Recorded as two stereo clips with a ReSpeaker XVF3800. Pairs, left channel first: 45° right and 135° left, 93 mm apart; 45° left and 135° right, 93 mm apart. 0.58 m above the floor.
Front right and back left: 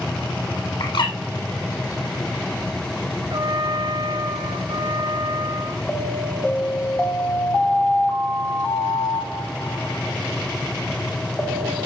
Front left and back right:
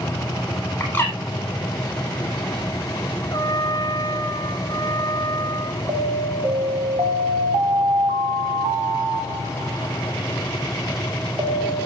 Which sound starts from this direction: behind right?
An alarm, at 5.9 s.